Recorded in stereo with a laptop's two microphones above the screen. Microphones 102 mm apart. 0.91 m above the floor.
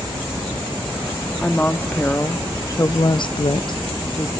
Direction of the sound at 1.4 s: 15° left (ahead or behind).